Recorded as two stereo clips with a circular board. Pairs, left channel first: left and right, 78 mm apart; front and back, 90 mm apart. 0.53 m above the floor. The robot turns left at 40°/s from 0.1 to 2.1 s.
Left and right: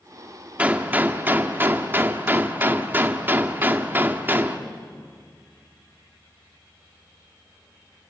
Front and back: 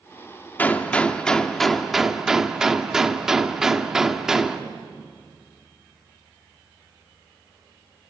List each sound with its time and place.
0.6 s a gunshot: 40° right, 1.4 m; by 4.6 s 100° right, 1.4 m